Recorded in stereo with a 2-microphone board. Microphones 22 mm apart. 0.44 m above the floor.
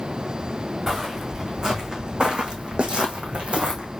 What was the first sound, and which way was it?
Footsteps, 25° right (ahead or behind).